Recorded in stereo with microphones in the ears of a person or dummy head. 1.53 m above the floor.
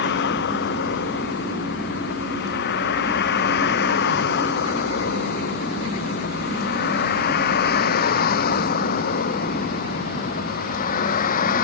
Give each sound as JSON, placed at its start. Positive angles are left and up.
{"t": 0.0, "sound": "a vehicle", "side_deg": 60}